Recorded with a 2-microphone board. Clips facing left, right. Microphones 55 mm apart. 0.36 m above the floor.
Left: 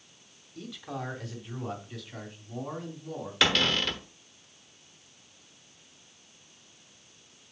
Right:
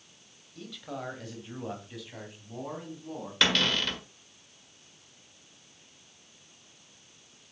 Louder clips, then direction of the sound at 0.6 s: Left 1 dB; 5° left (ahead or behind).